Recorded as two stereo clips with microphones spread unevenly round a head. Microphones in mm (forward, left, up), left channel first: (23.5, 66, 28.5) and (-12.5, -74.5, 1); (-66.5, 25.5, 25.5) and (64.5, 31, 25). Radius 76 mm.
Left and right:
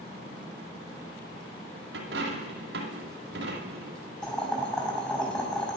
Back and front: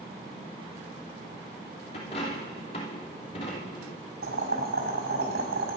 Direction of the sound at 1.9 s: 125° right.